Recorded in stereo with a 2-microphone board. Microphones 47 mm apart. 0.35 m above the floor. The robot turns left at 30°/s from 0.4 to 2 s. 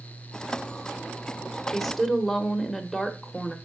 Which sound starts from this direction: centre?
A woman speaking, at 1.7 s.